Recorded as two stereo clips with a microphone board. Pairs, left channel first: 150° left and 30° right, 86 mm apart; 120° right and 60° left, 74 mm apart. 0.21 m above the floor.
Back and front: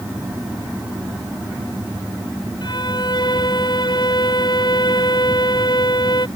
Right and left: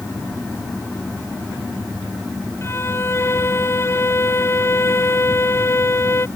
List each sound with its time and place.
2.6 s a violin: 175° right